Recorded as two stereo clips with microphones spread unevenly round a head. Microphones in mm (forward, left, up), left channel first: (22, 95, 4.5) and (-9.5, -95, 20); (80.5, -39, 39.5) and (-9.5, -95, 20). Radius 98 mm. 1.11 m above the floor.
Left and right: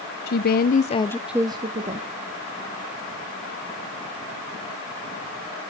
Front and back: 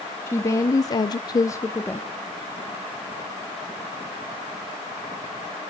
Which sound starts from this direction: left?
A woman speaking, at 0.3 s.